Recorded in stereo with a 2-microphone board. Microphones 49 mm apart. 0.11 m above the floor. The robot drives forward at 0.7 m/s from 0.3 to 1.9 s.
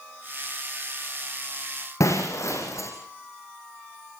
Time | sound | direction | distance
2.0 | breaking glass | 85° left | 7.5 m